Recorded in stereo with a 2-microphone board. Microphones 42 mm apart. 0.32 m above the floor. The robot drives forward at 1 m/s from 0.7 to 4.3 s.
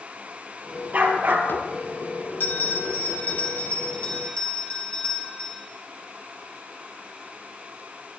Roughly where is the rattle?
No rattle in this recording.